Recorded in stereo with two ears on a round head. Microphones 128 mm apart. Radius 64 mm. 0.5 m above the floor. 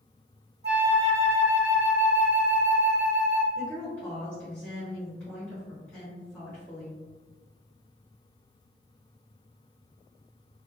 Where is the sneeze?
I don't hear a sneeze.